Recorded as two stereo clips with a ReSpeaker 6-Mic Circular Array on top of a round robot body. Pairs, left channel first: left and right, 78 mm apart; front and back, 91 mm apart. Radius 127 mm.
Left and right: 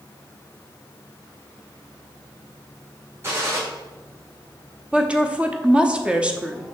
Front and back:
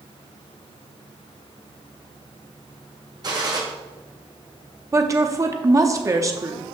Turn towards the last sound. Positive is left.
turn(degrees=-155)